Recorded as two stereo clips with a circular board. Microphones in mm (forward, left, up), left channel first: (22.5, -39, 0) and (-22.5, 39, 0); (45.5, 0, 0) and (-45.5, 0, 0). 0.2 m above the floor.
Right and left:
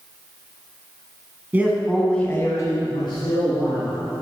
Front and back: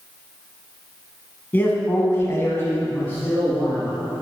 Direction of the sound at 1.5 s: 60° left.